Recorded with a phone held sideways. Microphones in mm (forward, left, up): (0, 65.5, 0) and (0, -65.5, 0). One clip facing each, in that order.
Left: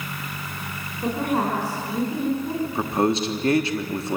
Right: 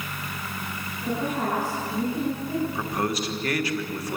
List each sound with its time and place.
1.0 s a woman speaking: 60° left (ahead or behind), 6 m
2.6 s a man speaking: 25° left (ahead or behind), 1.2 m